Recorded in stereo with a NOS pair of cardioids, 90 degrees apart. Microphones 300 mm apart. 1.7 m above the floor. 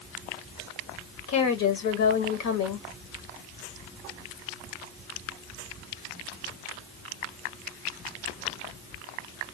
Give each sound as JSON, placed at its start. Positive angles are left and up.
{"t": 1.3, "sound": "a woman speaking", "azimuth_deg": 70, "distance_m": 1.4}